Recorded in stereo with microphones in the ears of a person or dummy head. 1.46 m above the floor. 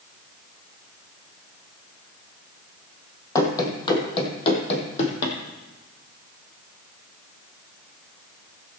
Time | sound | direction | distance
3.4 | running footsteps | 20° left (ahead or behind) | 2 m